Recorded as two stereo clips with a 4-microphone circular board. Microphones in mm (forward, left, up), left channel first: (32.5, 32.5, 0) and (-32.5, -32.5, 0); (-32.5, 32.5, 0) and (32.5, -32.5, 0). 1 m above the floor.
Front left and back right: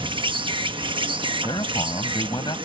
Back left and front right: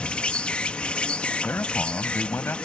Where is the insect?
150° right.